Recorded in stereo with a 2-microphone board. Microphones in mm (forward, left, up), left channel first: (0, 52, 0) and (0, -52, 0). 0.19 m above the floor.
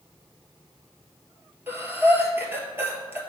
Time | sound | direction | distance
1.7 | breathing | 20° right (ahead or behind) | 1.3 m